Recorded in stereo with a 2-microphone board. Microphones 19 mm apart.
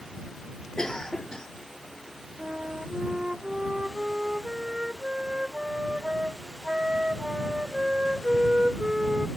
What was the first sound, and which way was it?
A cough, 30° left (ahead or behind).